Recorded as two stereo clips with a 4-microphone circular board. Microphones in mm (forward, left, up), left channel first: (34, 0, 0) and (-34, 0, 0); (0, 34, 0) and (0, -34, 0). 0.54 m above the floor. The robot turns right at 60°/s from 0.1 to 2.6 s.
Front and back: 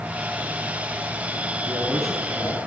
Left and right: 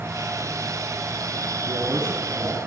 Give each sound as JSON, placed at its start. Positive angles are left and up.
{"t": 1.7, "sound": "a man speaking", "azimuth_deg": -100, "distance_m": 5.0}